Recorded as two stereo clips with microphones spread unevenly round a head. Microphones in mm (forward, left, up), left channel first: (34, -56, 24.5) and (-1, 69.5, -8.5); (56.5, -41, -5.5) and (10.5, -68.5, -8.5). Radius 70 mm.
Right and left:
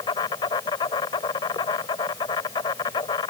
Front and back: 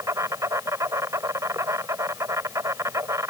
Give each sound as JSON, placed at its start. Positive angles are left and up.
{"t": 0.0, "sound": "an insect", "azimuth_deg": -130}